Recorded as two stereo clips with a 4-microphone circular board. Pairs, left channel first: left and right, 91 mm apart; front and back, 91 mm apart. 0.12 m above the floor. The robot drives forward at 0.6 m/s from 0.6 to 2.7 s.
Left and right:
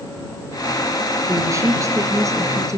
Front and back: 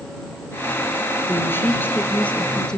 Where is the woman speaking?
50° right, 2.5 m; by 2.8 s 75° right, 2 m.